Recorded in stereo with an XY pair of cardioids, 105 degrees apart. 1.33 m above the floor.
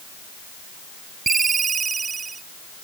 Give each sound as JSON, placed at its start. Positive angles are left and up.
{"t": 1.3, "sound": "a ringtone", "azimuth_deg": -35}